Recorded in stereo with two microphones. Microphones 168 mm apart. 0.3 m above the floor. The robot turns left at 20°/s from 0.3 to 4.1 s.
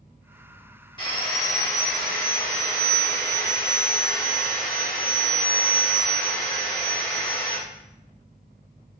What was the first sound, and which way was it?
Sawing, 70° left.